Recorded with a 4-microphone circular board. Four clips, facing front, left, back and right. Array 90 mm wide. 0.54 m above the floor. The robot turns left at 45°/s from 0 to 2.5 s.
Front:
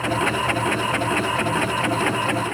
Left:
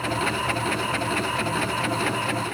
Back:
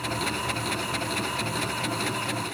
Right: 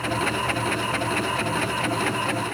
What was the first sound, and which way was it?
Only background noise.